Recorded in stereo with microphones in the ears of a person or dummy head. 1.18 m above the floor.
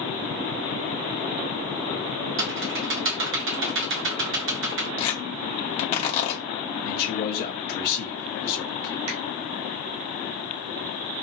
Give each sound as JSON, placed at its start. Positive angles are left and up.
{"t": 2.4, "sound": "typing on a keyboard", "side_deg": -60, "distance_m": 0.8}
{"t": 5.0, "sound": "tearing paper", "side_deg": 35, "distance_m": 1.6}
{"t": 6.8, "sound": "a man speaking", "side_deg": 50, "distance_m": 1.1}
{"t": 9.1, "sound": "a finger snap", "side_deg": -70, "distance_m": 2.5}